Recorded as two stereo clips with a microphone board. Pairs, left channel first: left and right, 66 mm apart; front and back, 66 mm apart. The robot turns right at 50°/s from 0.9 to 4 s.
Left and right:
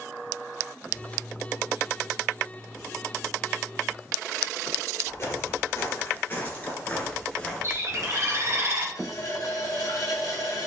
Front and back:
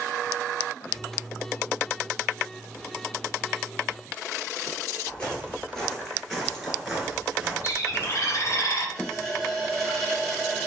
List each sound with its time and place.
5.1 s footsteps: 70° left, 1.9 m; by 8.6 s 165° right, 1.6 m
7.6 s a bird: 45° right, 0.9 m
8.9 s a running tap: 80° left, 1.6 m